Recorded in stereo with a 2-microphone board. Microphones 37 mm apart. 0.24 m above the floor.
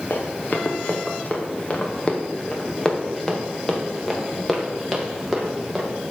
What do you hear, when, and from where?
0.1 s running footsteps: 55° left (ahead or behind), 2.5 m; by 5.8 s 5° right (ahead or behind), 3.5 m